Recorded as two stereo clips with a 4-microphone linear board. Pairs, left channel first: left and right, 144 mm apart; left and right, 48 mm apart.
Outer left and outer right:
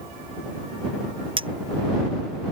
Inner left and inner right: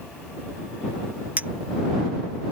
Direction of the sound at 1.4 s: 35° right (ahead or behind).